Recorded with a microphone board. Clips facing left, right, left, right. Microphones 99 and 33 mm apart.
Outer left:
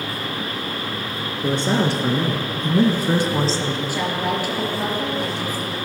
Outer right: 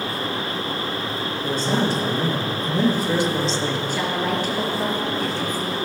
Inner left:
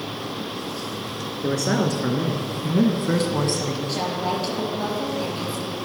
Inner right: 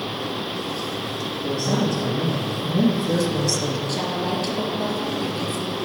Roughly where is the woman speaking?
Centre.